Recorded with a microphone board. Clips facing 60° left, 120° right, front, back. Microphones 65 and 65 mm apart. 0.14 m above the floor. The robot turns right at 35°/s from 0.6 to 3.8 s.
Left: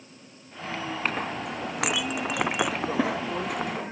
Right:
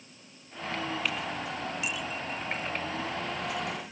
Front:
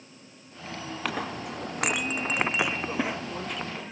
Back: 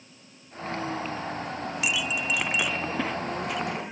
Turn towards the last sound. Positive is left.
turn(degrees=105)